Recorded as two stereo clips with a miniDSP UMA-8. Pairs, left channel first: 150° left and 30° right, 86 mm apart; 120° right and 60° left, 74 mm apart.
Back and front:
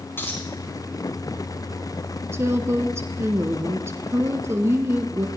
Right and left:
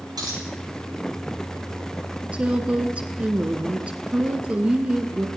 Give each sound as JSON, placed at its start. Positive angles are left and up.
{"t": 0.2, "sound": "a dropped coin", "azimuth_deg": 85, "distance_m": 7.0}
{"t": 2.3, "sound": "a woman speaking", "azimuth_deg": 0, "distance_m": 1.3}